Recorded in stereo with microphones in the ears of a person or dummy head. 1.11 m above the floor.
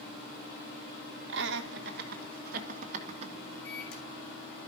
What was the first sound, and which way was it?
Laughter, 70° right (ahead or behind).